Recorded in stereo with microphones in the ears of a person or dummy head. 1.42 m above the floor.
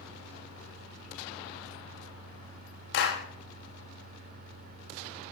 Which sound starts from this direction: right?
A fan, at 0.0 s.